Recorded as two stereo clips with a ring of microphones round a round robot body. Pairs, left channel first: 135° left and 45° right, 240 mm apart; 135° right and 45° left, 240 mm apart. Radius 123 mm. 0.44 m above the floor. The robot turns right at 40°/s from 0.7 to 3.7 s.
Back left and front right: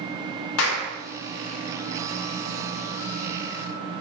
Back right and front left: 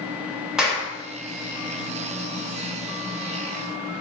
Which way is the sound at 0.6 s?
130° left.